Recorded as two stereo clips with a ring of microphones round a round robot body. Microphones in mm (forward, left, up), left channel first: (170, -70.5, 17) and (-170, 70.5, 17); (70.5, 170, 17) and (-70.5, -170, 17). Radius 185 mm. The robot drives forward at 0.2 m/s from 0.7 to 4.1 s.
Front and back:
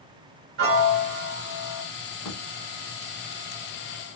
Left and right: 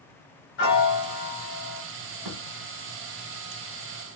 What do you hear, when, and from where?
0.6 s a piano: 115° left, 1.1 m; by 1.8 s 125° left, 1.2 m
2.2 s a thud: 70° right, 1.5 m